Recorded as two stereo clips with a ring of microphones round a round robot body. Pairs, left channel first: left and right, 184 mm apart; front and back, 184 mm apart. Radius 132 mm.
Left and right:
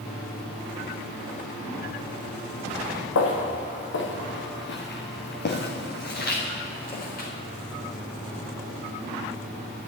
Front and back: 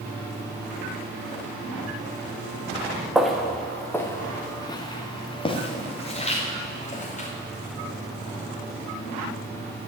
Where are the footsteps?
90° left, 2.5 m; by 7.3 s 50° left, 4 m.